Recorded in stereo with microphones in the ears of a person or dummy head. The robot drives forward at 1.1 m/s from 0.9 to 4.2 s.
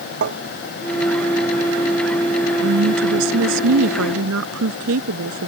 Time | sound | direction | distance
0.2 | tapping | 60° right (ahead or behind) | ?
2.6 | a woman speaking | 85° right | ?